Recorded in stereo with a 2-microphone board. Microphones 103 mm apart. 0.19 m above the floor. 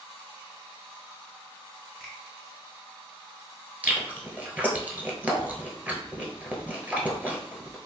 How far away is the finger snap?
About 1.6 m.